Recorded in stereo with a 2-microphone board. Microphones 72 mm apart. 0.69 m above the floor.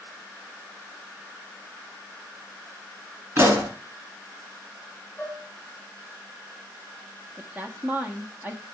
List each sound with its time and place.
3.4 s a pop: 35° right (ahead or behind), 2.5 m
5.2 s dishes clattering: 25° left (ahead or behind), 3.5 m
7.4 s a woman speaking: 25° right (ahead or behind), 1.2 m